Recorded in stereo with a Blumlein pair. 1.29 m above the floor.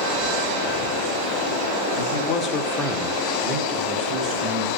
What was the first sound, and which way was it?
A man speaking, 60° left.